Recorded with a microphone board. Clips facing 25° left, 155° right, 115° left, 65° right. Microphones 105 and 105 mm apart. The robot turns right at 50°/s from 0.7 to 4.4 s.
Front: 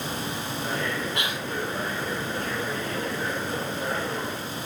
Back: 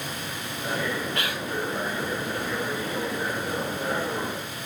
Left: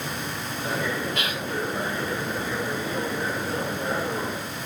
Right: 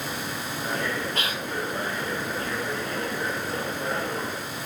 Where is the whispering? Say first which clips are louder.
Even, left 1 dB; 40° right, 1.7 m; by 1.5 s 25° right, 1.7 m.